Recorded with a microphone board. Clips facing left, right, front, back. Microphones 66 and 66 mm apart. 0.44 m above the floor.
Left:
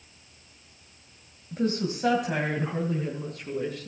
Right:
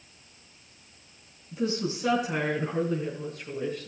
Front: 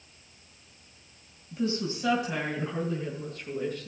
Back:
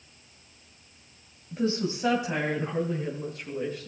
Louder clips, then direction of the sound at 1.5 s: Left 2 dB, back 2 dB; 125° left.